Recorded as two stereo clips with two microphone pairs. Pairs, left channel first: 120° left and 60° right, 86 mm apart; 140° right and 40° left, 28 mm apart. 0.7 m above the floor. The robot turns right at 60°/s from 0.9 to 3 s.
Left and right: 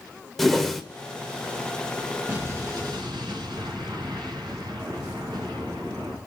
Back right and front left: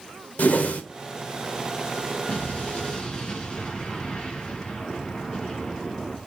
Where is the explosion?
125° right, 3.5 m; by 6.2 s 80° right, 3.5 m.